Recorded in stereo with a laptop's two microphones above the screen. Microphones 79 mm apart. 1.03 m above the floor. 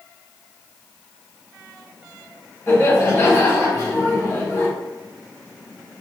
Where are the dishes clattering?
No dishes clattering in this recording.